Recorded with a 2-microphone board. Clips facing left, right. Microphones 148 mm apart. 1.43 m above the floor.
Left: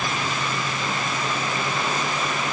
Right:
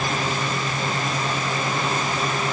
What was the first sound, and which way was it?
Only background noise.